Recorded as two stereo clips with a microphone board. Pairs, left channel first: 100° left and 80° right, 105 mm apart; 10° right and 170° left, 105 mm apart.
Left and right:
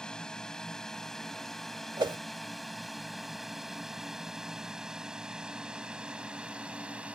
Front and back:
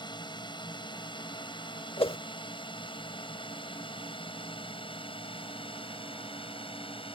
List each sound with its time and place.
0.0 s a drone: 20° left; by 7.2 s 5° right
2.0 s a whoosh: 40° right